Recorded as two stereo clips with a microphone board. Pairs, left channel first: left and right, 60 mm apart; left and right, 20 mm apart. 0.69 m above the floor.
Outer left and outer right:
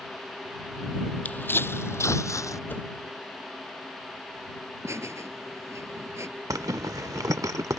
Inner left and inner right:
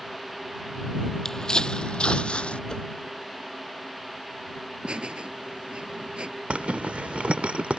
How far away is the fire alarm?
No fire alarm in this recording.